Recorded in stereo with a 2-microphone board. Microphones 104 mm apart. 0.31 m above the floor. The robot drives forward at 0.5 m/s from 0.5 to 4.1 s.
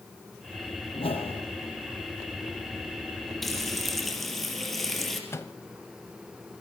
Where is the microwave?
25° left (ahead or behind), 1.1 m.